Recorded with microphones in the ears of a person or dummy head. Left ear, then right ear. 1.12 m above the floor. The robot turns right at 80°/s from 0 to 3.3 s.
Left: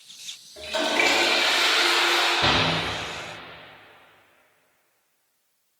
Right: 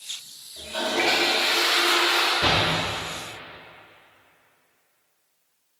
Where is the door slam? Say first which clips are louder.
Even; 5° right (ahead or behind), 0.8 m; by 2.7 s 25° right (ahead or behind), 0.8 m.